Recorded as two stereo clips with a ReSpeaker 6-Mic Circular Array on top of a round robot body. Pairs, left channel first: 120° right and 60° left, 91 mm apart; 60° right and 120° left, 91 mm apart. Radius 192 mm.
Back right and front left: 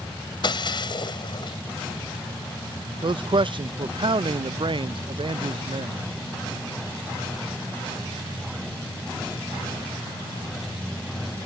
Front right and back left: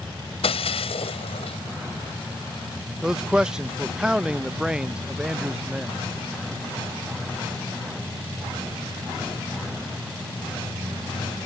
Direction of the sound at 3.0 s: 40° left.